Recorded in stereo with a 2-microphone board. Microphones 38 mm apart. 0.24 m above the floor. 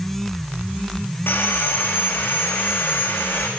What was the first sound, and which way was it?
Sawing, 75° left (ahead or behind).